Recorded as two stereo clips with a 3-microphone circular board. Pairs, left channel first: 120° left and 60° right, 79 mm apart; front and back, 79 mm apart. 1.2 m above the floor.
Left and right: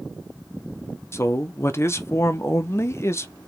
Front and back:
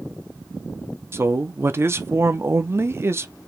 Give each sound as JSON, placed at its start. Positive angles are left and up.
{"t": 1.1, "sound": "a man speaking", "azimuth_deg": 150, "distance_m": 0.6}